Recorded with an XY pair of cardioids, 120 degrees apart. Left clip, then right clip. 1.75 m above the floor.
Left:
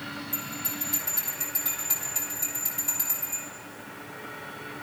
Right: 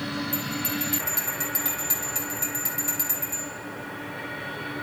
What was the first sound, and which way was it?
A bell, 35° right.